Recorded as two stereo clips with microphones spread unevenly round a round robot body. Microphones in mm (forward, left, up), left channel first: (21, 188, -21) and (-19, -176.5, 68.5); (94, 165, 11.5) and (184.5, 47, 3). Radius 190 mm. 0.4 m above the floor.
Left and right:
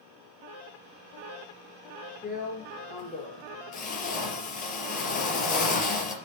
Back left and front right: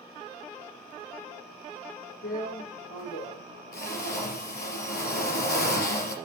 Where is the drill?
155° left, 3.5 m.